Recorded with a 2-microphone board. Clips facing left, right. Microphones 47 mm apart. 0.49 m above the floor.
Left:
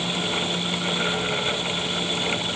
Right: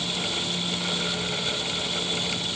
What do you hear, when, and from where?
Only background noise.